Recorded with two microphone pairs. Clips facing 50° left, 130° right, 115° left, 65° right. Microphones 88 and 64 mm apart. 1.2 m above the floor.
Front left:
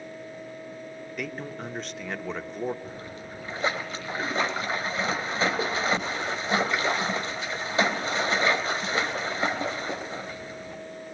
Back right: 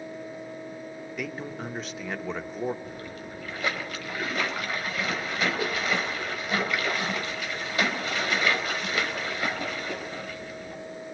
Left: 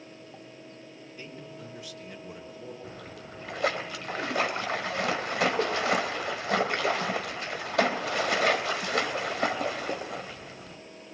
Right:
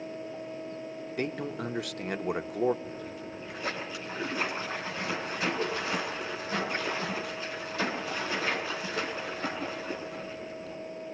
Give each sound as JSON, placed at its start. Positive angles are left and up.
{"t": 1.2, "sound": "a man speaking", "azimuth_deg": -45, "distance_m": 1.5}
{"t": 2.8, "sound": "a splash", "azimuth_deg": 110, "distance_m": 3.0}